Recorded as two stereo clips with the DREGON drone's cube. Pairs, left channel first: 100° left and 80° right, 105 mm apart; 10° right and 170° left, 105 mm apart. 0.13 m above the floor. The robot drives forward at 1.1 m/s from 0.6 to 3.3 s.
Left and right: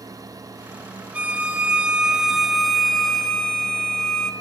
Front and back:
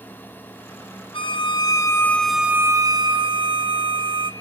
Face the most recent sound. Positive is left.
turn(degrees=-175)